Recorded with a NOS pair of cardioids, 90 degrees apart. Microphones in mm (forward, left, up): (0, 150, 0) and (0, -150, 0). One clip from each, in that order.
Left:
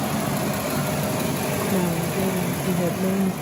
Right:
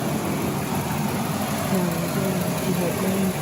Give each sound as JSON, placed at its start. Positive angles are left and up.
{"t": 1.7, "sound": "a woman speaking", "azimuth_deg": 15}